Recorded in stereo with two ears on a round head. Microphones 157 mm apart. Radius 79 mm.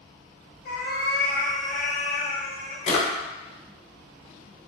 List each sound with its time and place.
0.7 s a cat meowing: 50° left (ahead or behind), 0.6 m
2.9 s a drawer: 35° left (ahead or behind), 0.6 m